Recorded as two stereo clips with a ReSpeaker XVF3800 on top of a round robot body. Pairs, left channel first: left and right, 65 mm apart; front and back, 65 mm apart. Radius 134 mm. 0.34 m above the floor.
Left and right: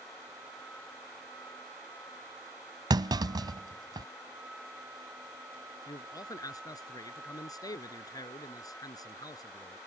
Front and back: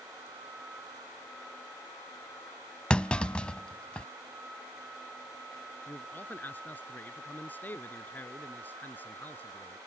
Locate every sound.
2.9 s a clunk: 75° right
5.9 s a man speaking: 65° left